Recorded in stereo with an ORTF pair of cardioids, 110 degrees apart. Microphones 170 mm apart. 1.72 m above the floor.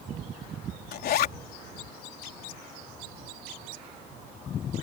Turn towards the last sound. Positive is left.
turn(degrees=65)